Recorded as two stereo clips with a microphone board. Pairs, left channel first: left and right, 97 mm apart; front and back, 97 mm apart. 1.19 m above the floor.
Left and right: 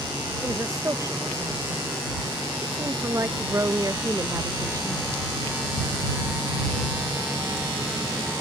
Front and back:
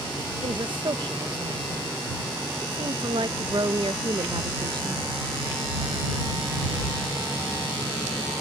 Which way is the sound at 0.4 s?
145° right.